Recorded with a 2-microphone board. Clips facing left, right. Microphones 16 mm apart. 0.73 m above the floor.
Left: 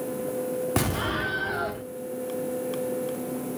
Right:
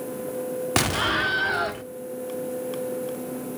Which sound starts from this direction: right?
An explosion, at 0.8 s.